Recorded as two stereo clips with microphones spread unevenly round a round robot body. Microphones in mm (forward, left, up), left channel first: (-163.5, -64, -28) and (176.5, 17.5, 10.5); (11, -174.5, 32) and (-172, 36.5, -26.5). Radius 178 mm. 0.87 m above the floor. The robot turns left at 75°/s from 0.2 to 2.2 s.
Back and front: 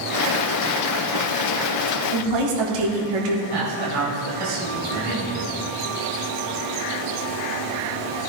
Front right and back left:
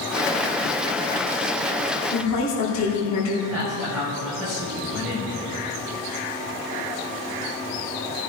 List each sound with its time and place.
2.1 s a woman speaking: 5° left, 2.5 m; by 3.4 s straight ahead, 2.5 m
3.5 s a man speaking: 40° left, 4.5 m